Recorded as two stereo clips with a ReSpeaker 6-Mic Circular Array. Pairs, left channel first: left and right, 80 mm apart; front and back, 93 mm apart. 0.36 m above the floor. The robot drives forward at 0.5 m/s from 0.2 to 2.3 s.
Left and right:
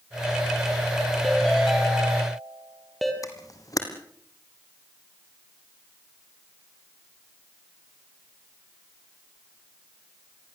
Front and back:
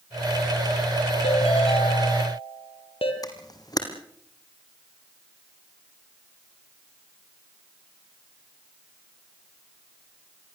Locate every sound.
1.2 s a ringtone: 5° left, 4.5 m
3.2 s a camera shutter: 45° left, 3.5 m